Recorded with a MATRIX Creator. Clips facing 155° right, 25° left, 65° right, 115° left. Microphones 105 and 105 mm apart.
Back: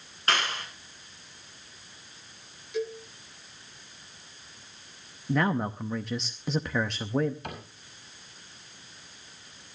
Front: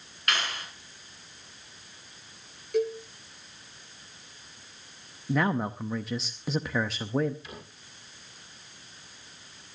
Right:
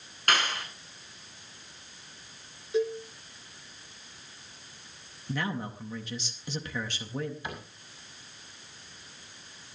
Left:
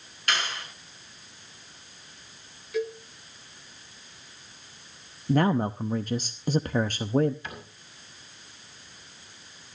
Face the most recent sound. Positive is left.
turn(degrees=-140)